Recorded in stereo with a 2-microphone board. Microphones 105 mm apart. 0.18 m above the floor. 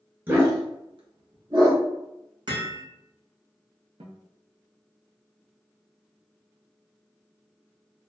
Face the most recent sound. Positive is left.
turn(degrees=-75)  # may be behind; listen again after turning